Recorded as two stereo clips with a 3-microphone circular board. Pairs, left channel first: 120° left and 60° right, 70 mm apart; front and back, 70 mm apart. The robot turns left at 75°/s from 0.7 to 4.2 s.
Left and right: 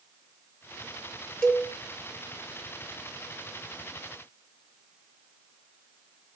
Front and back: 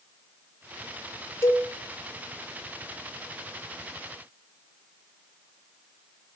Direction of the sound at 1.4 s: 40° left.